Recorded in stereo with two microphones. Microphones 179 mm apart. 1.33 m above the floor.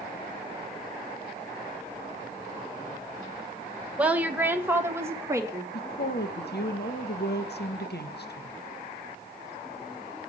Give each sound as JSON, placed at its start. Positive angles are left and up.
{"t": 4.0, "sound": "a woman speaking", "side_deg": -5, "distance_m": 1.5}
{"t": 5.7, "sound": "a woman speaking", "side_deg": 75, "distance_m": 1.6}